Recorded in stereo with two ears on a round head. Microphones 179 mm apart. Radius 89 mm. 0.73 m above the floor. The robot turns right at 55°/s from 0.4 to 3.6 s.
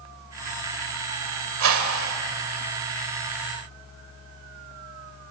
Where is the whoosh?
105° right, 1.8 m; by 2.2 s 75° right, 1.8 m.